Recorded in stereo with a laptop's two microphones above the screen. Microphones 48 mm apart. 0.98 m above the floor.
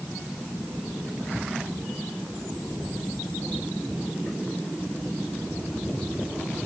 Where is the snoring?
No snoring in this recording.